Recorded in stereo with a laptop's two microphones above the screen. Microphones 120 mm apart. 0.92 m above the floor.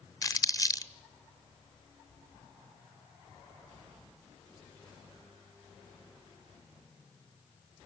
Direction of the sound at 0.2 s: 30° left (ahead or behind).